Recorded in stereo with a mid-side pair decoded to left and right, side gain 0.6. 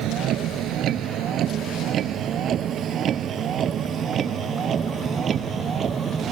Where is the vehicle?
60° right; by 6.3 s 40° right.